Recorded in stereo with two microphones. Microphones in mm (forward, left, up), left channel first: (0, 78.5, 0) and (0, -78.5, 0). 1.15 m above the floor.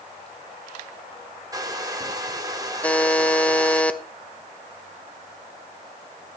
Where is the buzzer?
10° left (ahead or behind), 0.7 m.